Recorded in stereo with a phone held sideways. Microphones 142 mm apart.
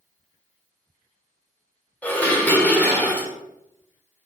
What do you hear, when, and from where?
2.0 s dishes clattering: 10° left (ahead or behind), 2 m